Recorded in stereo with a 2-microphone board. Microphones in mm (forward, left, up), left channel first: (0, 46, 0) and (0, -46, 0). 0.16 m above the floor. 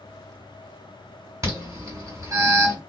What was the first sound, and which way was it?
An alarm, 35° right (ahead or behind).